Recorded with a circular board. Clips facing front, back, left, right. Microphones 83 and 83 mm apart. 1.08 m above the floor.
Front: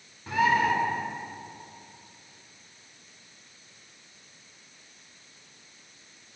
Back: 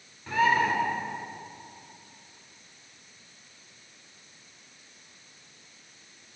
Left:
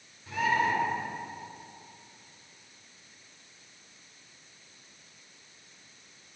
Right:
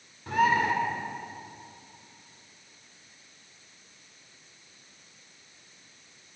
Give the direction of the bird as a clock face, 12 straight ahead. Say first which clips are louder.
Even, right 4 dB; 2 o'clock.